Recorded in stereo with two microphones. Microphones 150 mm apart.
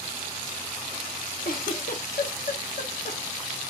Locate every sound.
1.4 s a giggle: 65° left (ahead or behind), 0.6 m